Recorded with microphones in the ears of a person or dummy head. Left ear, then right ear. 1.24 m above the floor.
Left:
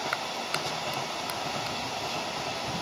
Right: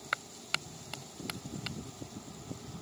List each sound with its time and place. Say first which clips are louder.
0.1 s a clap: left 5 dB; 15° right (ahead or behind)